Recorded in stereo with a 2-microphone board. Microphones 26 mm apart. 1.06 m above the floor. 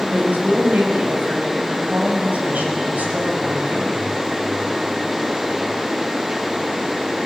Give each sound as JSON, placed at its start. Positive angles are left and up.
{"t": 0.1, "sound": "a woman speaking", "side_deg": -75, "distance_m": 6.0}